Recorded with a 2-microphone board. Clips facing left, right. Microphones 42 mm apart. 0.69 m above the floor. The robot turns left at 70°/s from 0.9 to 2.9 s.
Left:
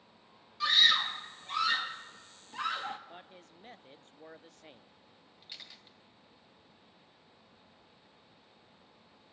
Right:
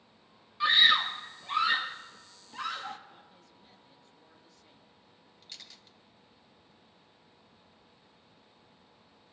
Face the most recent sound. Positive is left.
turn(degrees=15)  # may be behind; listen again after turning